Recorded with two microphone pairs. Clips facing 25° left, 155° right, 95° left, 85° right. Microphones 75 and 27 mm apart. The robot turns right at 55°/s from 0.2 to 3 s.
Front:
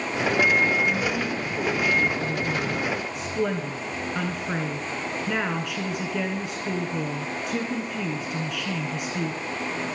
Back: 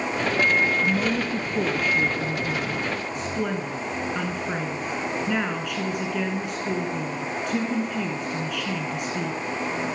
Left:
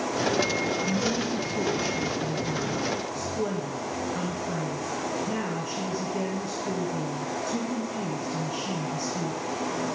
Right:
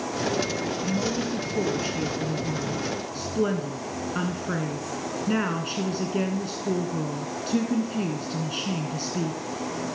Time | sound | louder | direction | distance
0.8 | a woman speaking | back 1 dB, even | straight behind | 2.0 m